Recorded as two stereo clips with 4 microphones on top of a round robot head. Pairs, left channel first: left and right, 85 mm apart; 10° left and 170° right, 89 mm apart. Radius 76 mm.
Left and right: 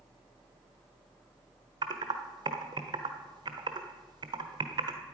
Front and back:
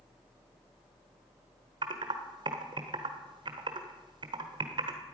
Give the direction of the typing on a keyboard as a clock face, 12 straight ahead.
4 o'clock.